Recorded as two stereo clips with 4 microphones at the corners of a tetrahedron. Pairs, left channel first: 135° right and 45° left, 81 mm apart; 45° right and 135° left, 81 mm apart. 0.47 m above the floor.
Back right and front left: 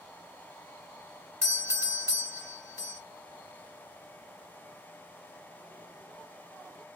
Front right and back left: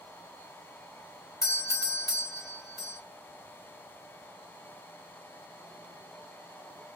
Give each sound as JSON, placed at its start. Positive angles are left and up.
{"t": 1.4, "sound": "a doorbell", "azimuth_deg": -5, "distance_m": 3.0}